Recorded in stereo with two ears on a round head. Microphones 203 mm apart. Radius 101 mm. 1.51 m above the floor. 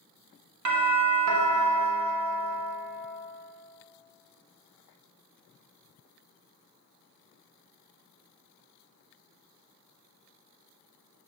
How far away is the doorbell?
About 0.9 m.